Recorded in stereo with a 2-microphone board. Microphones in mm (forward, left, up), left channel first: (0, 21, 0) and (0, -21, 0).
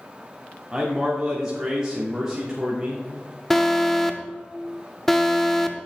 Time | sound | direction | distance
0.7 | a man speaking | 15° right (ahead or behind) | 1.3 m
3.5 | an alarm | 5° left (ahead or behind) | 0.6 m